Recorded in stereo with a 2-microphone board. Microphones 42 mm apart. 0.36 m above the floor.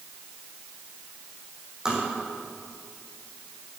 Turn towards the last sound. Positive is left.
turn(degrees=-20)  # may be behind; listen again after turning